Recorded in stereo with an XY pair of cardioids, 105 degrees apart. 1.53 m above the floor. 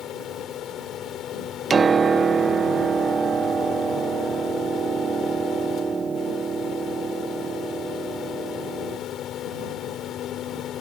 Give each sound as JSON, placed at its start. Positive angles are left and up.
{"t": 0.0, "sound": "a fan", "azimuth_deg": 70}
{"t": 1.7, "sound": "a piano", "azimuth_deg": -35}